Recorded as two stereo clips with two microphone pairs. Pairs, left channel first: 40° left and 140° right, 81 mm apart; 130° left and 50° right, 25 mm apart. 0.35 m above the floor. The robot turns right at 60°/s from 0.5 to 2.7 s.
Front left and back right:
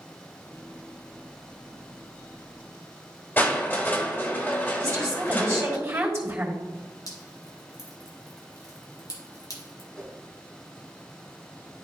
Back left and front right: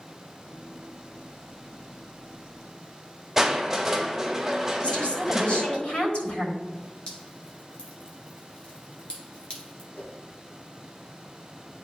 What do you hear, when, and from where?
3.4 s crushing: 25° left, 1.5 m
4.8 s a woman speaking: 170° left, 3.5 m
7.1 s dripping: 80° left, 2 m
9.9 s a whoosh: 125° left, 1.6 m